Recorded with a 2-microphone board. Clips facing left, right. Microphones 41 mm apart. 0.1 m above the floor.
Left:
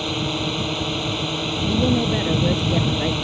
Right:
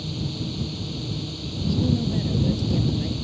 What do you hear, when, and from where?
0.0 s a drone: 60° left (ahead or behind)
1.7 s a woman speaking: 50° left (ahead or behind)